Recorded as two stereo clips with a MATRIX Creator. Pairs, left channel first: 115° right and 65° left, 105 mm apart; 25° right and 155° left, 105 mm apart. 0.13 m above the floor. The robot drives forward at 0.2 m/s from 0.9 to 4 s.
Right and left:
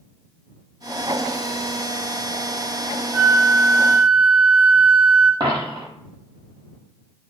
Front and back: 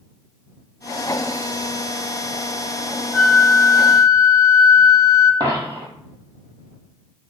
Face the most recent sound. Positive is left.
turn(degrees=110)